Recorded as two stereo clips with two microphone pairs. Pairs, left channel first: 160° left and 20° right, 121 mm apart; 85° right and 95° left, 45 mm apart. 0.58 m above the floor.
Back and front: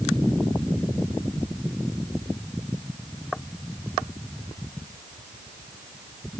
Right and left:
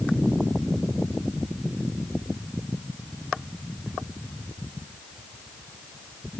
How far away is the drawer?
I don't hear a drawer.